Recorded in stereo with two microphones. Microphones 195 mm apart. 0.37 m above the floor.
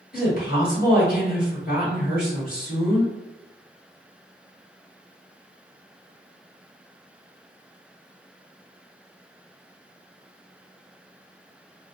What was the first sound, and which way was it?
A woman speaking, 50° left (ahead or behind).